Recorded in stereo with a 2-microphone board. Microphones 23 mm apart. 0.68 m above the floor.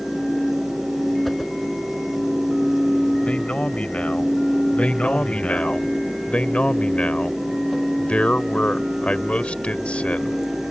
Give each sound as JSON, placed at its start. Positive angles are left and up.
{"t": 1.2, "sound": "a whoosh", "side_deg": 5}
{"t": 3.2, "sound": "a man speaking", "side_deg": 75}
{"t": 4.8, "sound": "a man speaking", "side_deg": 65}